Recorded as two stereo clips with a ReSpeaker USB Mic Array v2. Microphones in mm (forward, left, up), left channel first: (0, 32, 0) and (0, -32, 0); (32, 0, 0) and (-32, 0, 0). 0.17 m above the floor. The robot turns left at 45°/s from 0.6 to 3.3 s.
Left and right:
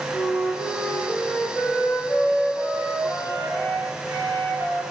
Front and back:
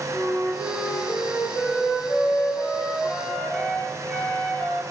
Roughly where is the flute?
Ahead left.